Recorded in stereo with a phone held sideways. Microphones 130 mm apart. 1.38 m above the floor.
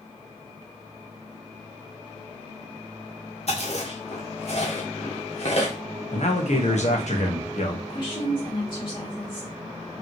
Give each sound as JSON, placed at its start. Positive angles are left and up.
{"t": 3.5, "sound": "chewing", "side_deg": 55, "distance_m": 1.7}
{"t": 6.1, "sound": "a man speaking", "side_deg": 60, "distance_m": 1.3}
{"t": 7.9, "sound": "a woman speaking", "side_deg": 35, "distance_m": 2.5}